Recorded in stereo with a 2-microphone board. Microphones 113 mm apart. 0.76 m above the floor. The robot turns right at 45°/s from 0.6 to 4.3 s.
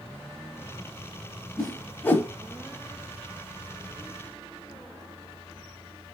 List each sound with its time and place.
1.6 s a whoosh: 5° left (ahead or behind), 0.7 m; by 2.3 s 25° left (ahead or behind), 0.7 m